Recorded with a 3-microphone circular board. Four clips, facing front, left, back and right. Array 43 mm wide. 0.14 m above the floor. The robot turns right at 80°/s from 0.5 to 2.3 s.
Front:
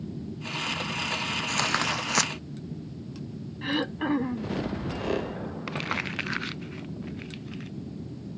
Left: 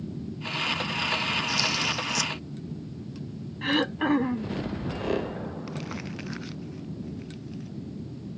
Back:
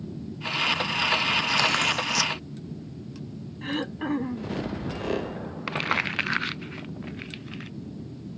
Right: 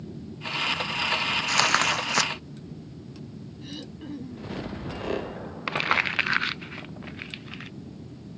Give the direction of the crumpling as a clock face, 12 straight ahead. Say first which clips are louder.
Right 11 dB, back 6 dB; 4 o'clock.